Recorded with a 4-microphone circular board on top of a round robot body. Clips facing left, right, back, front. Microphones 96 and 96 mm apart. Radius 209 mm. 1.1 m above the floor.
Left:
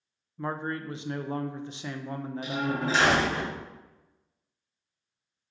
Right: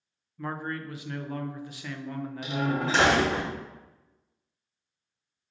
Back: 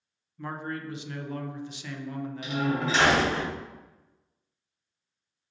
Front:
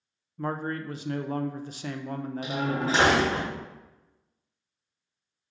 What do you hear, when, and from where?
0.4 s a man speaking: 35° left, 0.5 m
2.4 s a door slam: 55° right, 1.1 m